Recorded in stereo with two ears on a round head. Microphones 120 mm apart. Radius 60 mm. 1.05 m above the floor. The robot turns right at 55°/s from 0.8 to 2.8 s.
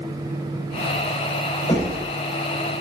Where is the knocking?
25° left (ahead or behind), 3.5 m; by 2.0 s 45° left (ahead or behind), 3.5 m.